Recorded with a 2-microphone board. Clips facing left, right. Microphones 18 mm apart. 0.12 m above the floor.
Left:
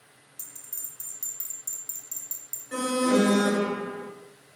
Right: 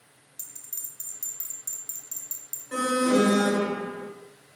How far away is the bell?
About 1.1 m.